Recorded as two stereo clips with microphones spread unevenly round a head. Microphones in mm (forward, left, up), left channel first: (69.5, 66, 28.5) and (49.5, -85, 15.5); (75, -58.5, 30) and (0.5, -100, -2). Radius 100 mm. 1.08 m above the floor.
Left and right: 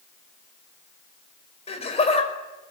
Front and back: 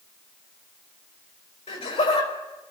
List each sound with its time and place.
1.7 s laughter: 35° left, 5.5 m